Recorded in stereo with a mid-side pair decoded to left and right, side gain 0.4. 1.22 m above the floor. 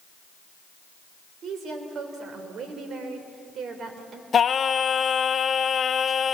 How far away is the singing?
About 0.8 m.